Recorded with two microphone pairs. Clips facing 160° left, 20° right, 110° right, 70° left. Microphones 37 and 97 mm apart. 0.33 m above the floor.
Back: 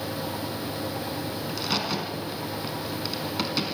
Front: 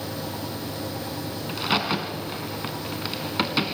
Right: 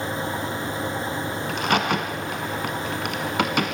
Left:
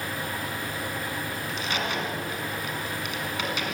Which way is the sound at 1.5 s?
85° right.